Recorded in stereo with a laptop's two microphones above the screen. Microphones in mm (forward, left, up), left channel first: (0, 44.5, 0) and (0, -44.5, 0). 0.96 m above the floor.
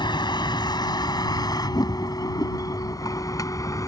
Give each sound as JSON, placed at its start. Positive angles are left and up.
{"t": 0.0, "sound": "a vehicle", "side_deg": 55}